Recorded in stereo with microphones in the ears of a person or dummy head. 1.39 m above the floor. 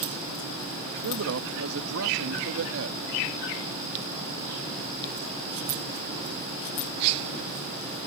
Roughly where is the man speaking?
Right.